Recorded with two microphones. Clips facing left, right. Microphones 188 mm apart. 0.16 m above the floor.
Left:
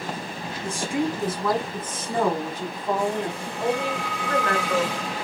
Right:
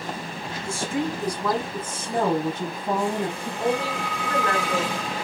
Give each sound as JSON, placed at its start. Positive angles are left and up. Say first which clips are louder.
{"t": 0.6, "sound": "a woman speaking", "louder": "left 1 dB", "side_deg": 20, "distance_m": 1.4}
{"t": 3.6, "sound": "a woman speaking", "louder": "even", "side_deg": -35, "distance_m": 2.0}